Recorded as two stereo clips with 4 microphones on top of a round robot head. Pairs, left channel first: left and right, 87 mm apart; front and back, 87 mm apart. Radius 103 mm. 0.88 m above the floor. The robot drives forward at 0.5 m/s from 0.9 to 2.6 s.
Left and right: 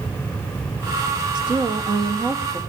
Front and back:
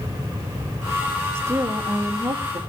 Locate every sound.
1.4 s a woman speaking: 120° right, 1.6 m; by 2.6 s 135° right, 1.9 m